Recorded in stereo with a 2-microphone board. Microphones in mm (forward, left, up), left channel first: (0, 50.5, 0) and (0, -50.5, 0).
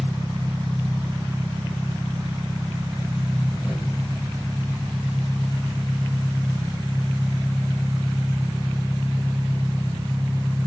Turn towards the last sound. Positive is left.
turn(degrees=-5)  # may be behind; listen again after turning